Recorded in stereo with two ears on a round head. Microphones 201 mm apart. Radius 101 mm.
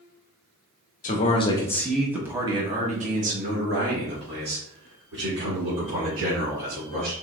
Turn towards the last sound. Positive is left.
turn(degrees=-60)  # may be behind; listen again after turning